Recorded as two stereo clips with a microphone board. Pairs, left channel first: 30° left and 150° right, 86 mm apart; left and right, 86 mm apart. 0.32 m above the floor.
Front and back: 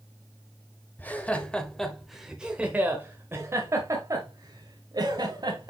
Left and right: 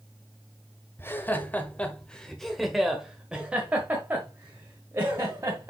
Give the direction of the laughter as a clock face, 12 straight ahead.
10 o'clock.